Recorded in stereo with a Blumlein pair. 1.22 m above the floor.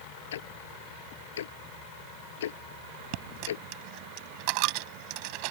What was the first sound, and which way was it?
Ticking, 60° left.